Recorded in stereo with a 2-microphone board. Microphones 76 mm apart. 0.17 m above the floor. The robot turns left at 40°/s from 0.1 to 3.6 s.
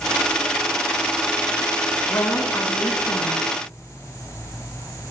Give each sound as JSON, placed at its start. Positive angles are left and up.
{"t": 2.1, "sound": "a woman speaking", "azimuth_deg": 125, "distance_m": 2.0}